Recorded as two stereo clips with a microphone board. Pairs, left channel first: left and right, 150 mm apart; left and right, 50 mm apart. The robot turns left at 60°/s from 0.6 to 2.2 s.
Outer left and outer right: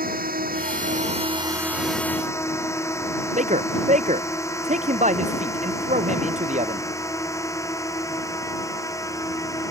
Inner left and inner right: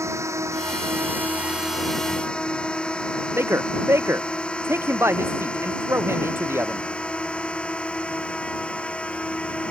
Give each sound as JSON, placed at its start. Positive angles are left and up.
{"t": 0.0, "sound": "a drone", "side_deg": -75}
{"t": 3.4, "sound": "a man speaking", "side_deg": -55}